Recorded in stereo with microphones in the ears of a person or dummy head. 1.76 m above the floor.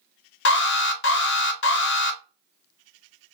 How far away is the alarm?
About 0.7 m.